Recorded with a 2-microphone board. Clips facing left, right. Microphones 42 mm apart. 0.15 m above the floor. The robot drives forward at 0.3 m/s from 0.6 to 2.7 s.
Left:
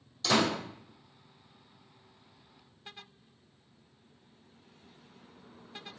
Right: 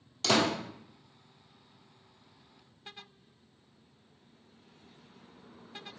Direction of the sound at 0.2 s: 55° right (ahead or behind).